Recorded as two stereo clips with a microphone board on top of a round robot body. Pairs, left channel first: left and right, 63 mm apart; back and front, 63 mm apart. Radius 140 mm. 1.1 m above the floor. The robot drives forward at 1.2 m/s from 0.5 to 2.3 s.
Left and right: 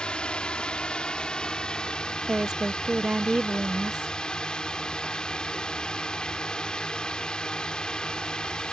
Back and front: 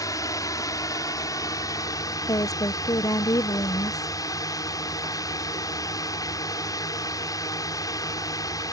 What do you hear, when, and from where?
0.0 s a drone: 165° left
2.3 s a woman speaking: 170° right